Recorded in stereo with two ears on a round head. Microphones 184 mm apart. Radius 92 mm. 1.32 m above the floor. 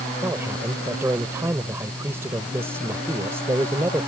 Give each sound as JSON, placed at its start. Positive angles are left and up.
{"t": 0.2, "sound": "a man speaking", "side_deg": -10}